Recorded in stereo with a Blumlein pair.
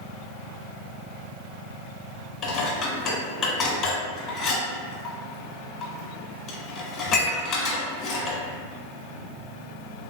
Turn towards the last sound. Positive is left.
turn(degrees=25)